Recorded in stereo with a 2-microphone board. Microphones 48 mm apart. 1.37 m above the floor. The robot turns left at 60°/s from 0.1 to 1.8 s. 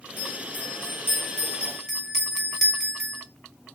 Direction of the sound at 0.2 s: 105° left.